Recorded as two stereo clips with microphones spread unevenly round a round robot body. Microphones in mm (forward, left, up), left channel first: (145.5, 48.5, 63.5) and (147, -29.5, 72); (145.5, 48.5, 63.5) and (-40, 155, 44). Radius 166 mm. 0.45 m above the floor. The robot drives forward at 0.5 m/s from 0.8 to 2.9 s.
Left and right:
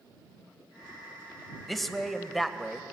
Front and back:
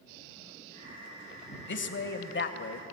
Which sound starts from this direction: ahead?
A man speaking, at 1.7 s.